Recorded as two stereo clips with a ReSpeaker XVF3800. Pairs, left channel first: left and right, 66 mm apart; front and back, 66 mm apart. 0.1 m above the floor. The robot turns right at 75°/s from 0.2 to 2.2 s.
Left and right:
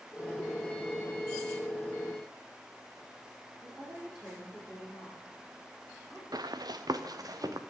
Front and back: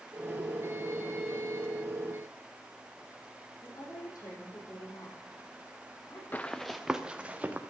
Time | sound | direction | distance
3.6 | a woman speaking | 10° right | 5 m
6.3 | running footsteps | 65° right | 0.6 m